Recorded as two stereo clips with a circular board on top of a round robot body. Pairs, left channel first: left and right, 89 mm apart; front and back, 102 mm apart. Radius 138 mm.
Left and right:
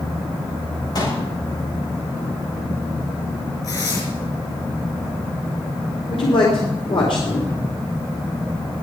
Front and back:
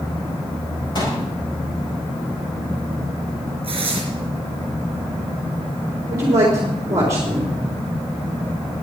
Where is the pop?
45° left, 6.5 m.